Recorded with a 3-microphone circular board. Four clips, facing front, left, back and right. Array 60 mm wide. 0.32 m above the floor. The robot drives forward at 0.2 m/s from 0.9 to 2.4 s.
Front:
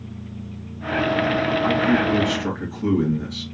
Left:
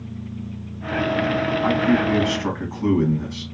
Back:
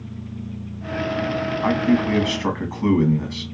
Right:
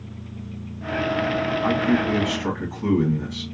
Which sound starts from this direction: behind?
A man speaking, at 1.6 s.